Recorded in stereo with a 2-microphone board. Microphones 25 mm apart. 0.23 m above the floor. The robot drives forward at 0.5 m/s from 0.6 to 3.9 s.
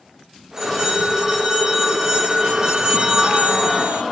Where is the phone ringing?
20° right (ahead or behind), 2.5 m; by 4.0 s 40° right (ahead or behind), 1.2 m.